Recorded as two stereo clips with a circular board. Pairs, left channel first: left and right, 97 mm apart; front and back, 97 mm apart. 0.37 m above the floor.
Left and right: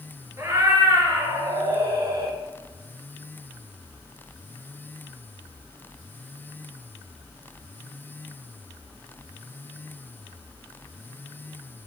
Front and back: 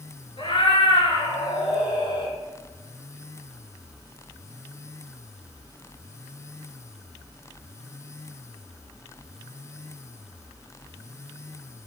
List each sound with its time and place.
0.4 s a cat meowing: 30° right, 3.5 m; by 2.4 s 40° right, 3 m